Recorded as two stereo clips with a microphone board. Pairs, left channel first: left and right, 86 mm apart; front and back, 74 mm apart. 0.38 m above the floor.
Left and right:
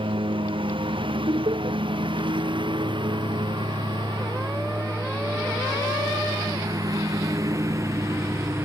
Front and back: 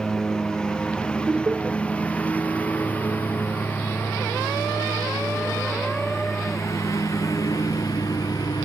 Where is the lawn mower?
80° right; by 8.7 s 30° right.